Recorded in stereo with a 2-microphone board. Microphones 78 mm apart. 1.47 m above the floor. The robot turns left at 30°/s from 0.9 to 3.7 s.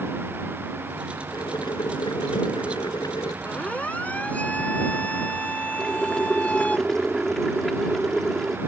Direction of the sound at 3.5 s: 25° left (ahead or behind).